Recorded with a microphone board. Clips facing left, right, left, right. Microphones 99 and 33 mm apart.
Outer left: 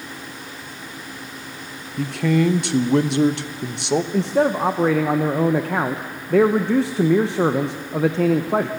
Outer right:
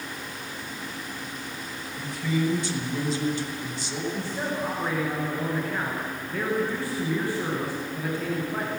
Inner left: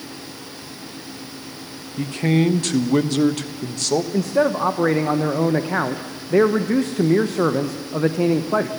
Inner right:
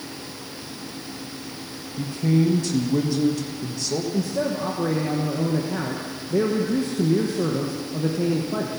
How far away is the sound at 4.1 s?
About 1.0 m.